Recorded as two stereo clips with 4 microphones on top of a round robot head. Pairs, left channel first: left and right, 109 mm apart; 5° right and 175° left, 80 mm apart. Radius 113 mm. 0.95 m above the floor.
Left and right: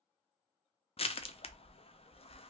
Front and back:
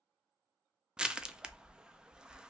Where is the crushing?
95° left, 0.5 m.